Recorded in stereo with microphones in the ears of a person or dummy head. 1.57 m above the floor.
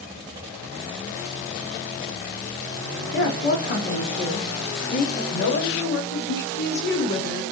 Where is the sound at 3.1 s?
50° left (ahead or behind), 1.5 m.